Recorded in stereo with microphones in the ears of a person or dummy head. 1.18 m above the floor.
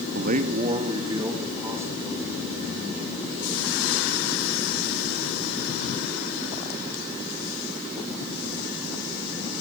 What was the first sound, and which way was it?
A man speaking, 60° right (ahead or behind).